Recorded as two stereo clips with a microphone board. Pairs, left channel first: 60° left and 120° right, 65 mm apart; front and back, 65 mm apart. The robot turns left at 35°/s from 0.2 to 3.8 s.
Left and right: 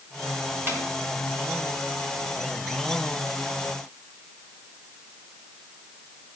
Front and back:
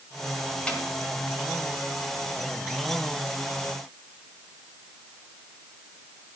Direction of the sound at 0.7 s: 70° right.